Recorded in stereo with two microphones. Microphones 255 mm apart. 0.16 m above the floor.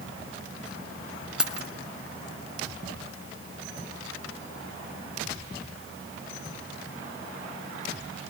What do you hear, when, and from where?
1.4 s keys jangling: 5° right (ahead or behind), 1.2 m